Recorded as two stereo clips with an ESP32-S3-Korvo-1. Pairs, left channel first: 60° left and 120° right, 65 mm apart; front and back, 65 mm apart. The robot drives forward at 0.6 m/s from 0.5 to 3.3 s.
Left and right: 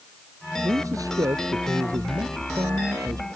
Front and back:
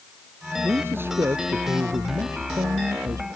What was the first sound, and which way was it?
A man speaking, 130° right.